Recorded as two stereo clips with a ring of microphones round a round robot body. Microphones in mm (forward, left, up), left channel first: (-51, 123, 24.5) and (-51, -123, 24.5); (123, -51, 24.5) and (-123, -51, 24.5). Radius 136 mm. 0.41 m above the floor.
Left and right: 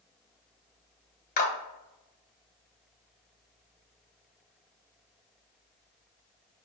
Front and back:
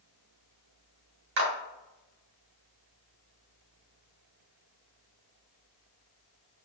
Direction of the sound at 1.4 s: 140° left.